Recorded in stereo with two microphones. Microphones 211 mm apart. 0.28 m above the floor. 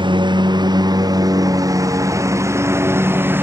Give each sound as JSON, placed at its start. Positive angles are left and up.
{"t": 0.0, "sound": "a lawn mower", "side_deg": -20}